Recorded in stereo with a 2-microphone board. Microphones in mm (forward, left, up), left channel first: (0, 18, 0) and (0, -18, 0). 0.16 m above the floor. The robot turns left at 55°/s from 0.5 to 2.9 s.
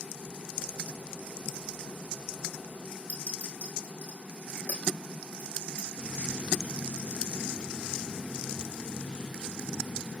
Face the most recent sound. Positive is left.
turn(degrees=15)  # may be behind; listen again after turning